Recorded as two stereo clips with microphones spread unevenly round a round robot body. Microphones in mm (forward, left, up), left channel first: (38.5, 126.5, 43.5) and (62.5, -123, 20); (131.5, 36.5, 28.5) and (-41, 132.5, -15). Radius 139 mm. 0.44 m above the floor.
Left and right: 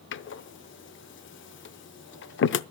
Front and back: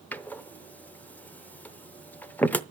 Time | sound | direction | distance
0.1 | a door slam | 60° left | 0.7 m